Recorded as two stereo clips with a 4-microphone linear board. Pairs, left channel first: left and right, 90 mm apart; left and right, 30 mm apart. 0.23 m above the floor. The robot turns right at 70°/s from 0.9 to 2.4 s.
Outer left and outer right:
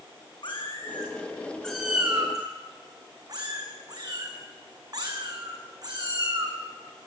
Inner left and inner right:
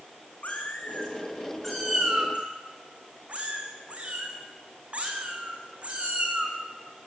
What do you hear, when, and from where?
0.4 s a cat meowing: 60° left (ahead or behind), 4.5 m; by 6.6 s 45° right (ahead or behind), 4.5 m